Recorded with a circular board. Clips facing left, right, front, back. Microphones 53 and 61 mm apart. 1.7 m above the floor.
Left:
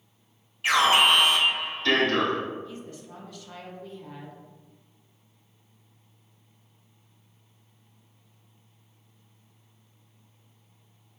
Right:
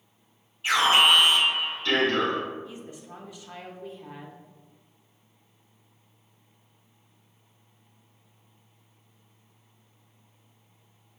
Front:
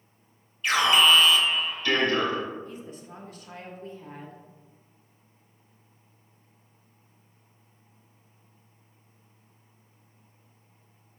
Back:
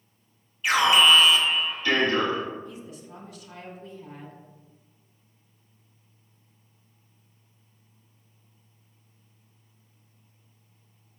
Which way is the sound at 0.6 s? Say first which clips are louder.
Even, back 2 dB; 100° left.